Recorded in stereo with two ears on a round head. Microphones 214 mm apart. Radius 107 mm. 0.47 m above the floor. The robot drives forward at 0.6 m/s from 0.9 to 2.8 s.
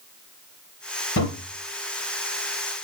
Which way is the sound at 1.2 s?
55° left (ahead or behind).